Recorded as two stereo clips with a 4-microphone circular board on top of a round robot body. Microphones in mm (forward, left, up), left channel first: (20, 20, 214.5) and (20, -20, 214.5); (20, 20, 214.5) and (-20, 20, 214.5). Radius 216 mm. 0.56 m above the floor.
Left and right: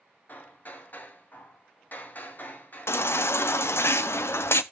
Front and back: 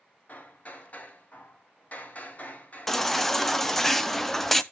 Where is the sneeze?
No sneeze in this recording.